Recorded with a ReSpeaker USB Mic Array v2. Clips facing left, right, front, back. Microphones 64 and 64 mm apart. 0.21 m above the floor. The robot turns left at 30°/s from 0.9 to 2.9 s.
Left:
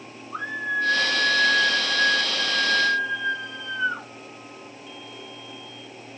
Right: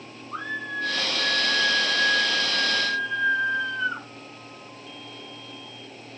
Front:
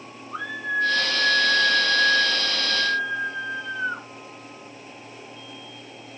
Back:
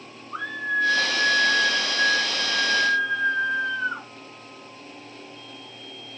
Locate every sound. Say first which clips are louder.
0.3 s a scream: left 4 dB, back 1 dB; 100° right, 7.5 m; by 4.1 s 160° right, 7.5 m